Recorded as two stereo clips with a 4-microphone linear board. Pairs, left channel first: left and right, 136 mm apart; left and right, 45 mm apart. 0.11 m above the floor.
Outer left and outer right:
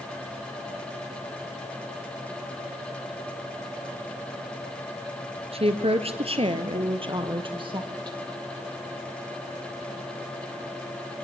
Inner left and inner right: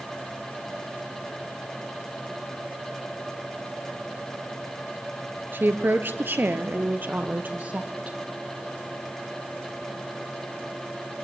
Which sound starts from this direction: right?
A woman speaking, at 5.5 s.